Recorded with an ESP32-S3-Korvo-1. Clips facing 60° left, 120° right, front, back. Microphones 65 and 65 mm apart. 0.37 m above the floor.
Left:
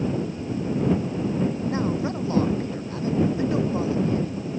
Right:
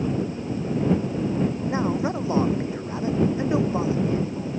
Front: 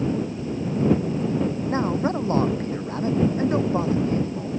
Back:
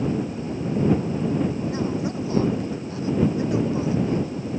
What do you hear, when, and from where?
1.7 s a man speaking: 50° right